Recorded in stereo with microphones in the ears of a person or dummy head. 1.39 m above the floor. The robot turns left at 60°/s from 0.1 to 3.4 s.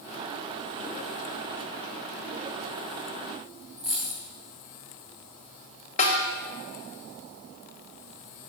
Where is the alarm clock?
No alarm clock in this recording.